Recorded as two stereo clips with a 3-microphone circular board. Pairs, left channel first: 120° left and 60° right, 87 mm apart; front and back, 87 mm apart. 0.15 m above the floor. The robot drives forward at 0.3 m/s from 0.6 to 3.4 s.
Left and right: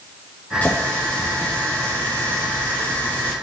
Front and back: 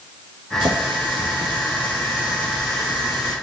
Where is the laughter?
I don't hear laughter.